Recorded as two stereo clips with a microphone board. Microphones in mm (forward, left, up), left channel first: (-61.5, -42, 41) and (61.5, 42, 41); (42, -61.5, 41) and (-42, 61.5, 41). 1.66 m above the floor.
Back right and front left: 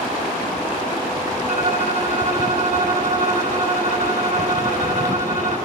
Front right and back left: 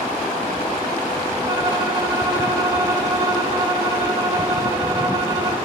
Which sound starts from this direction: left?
A violin, at 1.5 s.